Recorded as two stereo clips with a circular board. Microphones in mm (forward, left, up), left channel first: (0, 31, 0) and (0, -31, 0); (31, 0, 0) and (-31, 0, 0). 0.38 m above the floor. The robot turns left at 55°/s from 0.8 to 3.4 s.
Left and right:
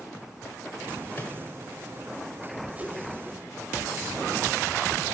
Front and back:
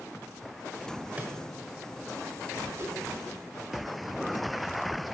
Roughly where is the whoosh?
Behind right.